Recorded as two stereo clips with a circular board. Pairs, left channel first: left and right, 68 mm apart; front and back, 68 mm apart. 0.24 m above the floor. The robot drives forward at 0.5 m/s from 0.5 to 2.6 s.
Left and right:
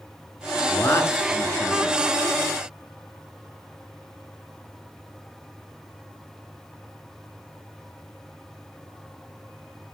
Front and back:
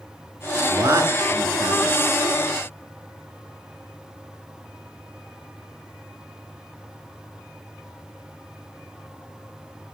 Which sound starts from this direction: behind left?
A man speaking, at 0.7 s.